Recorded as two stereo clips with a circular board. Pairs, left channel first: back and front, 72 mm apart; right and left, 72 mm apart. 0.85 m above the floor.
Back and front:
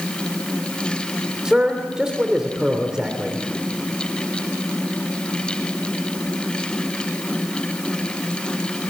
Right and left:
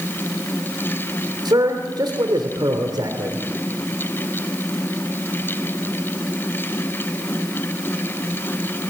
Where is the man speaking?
80° left, 2.5 m.